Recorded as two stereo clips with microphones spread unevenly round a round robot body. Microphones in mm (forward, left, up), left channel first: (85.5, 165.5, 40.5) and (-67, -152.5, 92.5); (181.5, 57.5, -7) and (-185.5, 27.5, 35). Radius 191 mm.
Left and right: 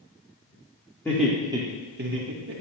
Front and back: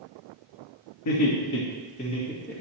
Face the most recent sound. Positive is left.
turn(degrees=-75)